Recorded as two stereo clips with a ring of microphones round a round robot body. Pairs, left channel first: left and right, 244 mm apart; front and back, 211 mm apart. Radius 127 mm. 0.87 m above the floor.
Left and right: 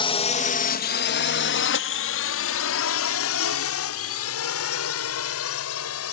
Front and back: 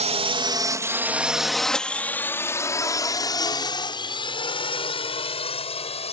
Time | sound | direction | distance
0.0 | a drone | 145° left | ?